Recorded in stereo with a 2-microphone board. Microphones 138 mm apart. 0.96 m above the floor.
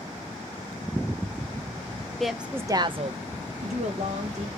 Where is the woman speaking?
Centre (ahead or behind), 0.7 m; by 4.5 s 50° right (ahead or behind), 1.2 m.